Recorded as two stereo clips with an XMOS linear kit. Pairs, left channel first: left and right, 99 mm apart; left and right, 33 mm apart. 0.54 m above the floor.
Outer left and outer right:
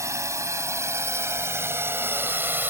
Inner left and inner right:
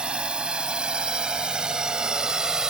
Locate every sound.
0.0 s a drone: 30° right (ahead or behind); by 2.7 s 20° right (ahead or behind)